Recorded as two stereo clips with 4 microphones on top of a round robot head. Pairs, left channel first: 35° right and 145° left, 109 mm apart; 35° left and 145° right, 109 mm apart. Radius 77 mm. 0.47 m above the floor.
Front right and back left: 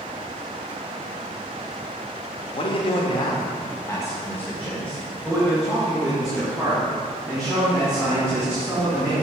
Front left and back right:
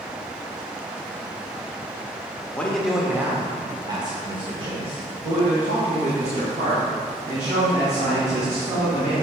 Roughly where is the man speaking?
Ahead right.